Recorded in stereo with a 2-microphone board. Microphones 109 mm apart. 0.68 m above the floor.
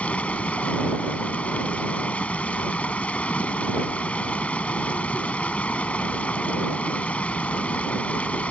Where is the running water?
10° left (ahead or behind).